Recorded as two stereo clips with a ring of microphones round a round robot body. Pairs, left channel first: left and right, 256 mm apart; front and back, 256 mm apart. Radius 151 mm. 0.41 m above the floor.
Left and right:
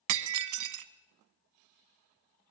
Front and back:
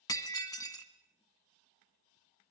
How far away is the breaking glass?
About 1.2 m.